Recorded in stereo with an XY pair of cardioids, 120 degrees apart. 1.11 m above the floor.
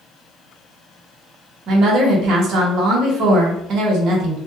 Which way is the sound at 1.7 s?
60° right.